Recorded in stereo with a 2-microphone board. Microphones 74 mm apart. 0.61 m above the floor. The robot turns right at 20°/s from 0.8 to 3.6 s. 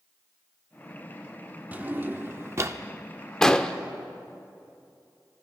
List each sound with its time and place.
1.7 s a drawer: 25° right (ahead or behind), 0.6 m; by 2.8 s 45° right (ahead or behind), 0.6 m
3.4 s an explosion: 10° left (ahead or behind), 0.6 m; by 3.7 s 15° left (ahead or behind), 0.6 m